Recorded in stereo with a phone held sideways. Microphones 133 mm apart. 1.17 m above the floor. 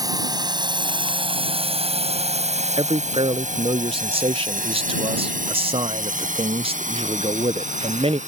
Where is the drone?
30° right (ahead or behind); by 8.3 s 65° right (ahead or behind).